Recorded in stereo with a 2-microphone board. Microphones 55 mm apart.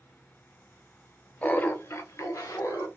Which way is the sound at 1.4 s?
25° left (ahead or behind).